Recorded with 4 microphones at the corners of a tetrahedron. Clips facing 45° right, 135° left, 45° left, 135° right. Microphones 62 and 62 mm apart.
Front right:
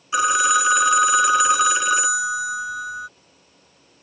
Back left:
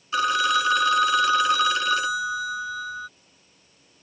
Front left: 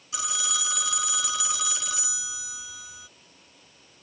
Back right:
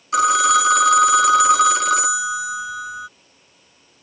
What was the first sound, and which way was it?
A phone ringing, 120° right.